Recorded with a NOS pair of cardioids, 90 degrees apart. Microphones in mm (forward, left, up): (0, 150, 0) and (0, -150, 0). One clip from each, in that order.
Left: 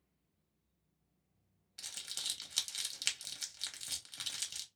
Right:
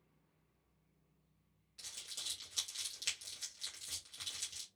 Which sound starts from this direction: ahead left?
Crumpling, at 1.8 s.